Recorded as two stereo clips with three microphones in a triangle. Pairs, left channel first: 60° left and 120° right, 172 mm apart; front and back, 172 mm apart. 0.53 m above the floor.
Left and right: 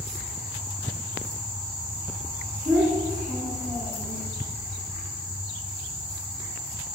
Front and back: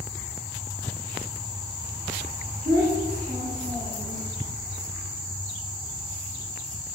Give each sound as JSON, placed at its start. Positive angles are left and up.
{"t": 2.6, "sound": "a child speaking", "azimuth_deg": 180, "distance_m": 1.2}